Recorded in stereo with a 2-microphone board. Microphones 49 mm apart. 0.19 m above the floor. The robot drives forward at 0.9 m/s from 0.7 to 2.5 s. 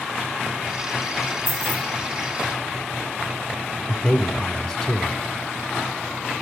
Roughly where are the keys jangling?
Right.